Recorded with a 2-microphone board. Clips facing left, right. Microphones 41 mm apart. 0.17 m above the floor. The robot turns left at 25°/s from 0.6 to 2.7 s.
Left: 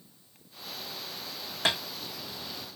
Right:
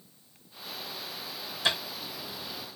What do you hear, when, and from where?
1.6 s tapping: 50° left (ahead or behind), 3.5 m; by 1.8 s 55° left (ahead or behind), 3.5 m